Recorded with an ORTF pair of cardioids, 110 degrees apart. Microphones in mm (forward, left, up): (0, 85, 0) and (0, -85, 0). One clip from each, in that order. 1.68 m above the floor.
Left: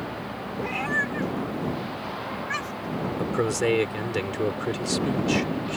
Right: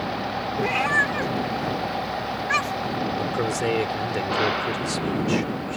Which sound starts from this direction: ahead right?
A cat meowing, at 0.6 s.